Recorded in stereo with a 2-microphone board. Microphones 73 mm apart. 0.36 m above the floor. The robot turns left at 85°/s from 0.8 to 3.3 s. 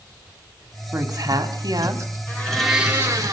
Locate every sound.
0.9 s a woman speaking: 40° right, 2 m; by 2.2 s 150° right, 2 m
2.3 s a blender: 30° left, 5.5 m; by 3.3 s 55° right, 5.5 m